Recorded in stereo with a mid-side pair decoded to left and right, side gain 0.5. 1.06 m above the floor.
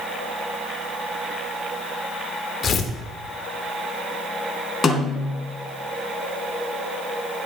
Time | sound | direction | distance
2.6 | tearing paper | 45° left | 1.9 m
4.8 | a snare drum | 25° left | 4 m